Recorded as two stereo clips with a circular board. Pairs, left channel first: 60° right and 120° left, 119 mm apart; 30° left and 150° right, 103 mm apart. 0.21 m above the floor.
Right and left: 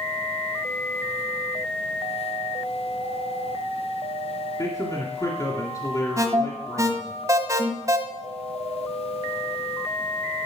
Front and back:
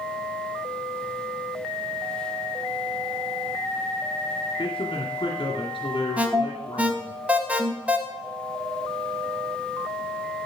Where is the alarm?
150° left, 1.3 m.